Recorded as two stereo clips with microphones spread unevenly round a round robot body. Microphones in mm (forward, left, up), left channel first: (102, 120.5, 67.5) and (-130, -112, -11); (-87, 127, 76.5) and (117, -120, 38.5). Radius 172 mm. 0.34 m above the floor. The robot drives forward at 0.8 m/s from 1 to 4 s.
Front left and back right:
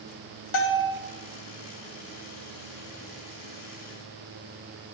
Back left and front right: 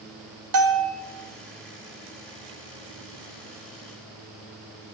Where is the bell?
15° right, 2.5 m.